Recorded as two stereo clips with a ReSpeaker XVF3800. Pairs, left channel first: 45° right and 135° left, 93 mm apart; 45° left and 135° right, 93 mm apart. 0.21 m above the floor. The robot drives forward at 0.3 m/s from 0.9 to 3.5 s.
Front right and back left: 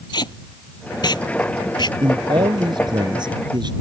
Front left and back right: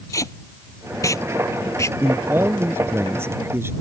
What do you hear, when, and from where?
0.1 s tape being pulled: 5° right; by 1.9 s 10° right
2.0 s a man speaking: 165° left